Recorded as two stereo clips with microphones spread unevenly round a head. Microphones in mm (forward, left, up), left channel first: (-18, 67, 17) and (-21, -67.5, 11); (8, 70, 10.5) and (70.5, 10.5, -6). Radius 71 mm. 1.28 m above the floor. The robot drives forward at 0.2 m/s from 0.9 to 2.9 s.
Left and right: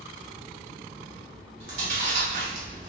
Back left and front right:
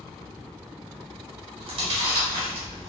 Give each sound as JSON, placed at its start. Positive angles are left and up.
{"t": 1.6, "sound": "chewing", "azimuth_deg": -40, "distance_m": 1.2}